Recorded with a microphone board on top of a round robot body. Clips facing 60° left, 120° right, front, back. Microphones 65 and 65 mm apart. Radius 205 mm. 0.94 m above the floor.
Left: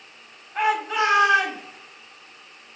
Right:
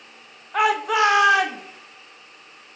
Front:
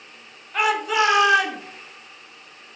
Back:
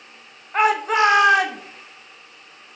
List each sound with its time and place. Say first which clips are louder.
0.5 s a shout: right 3 dB, back 3 dB; 125° right, 1.2 m; by 1.6 s 140° right, 1.8 m